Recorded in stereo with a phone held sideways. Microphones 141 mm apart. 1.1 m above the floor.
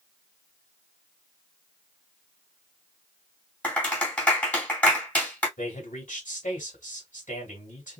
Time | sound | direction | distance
3.6 | a clap | 10° left (ahead or behind) | 2 m
5.6 | a man speaking | 70° left (ahead or behind) | 2 m